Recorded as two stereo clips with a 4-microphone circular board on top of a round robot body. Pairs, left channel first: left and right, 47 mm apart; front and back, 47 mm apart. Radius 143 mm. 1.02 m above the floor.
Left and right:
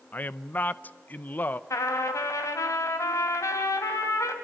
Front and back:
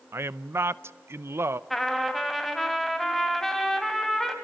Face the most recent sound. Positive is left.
turn(degrees=85)